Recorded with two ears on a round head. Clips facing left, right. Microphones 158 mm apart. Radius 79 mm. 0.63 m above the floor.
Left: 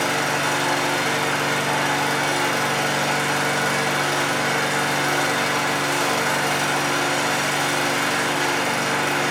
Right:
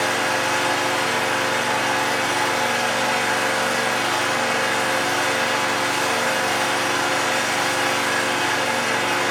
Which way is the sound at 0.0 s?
55° left (ahead or behind).